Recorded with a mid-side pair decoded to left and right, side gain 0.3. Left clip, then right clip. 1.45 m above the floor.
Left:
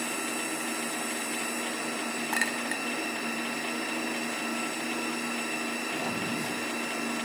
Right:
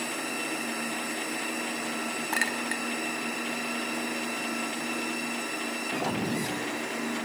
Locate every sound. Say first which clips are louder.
2.3 s a clink: right 1 dB; 15° right, 2 m